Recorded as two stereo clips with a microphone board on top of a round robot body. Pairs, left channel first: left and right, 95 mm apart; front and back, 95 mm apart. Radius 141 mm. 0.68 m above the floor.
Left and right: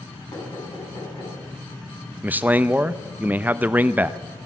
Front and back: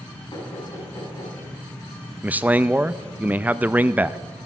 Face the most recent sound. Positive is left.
turn(degrees=-130)